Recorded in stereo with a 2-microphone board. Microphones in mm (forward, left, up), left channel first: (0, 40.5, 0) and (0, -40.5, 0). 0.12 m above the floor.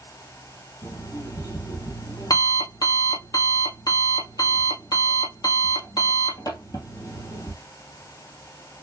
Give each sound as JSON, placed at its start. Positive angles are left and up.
{"t": 0.8, "sound": "an alarm clock", "side_deg": 50, "distance_m": 1.8}